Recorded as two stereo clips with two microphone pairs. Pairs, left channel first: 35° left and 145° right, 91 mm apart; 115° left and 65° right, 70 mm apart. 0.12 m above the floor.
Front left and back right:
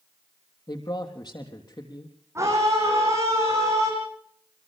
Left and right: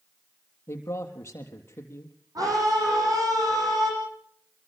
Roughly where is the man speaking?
Left.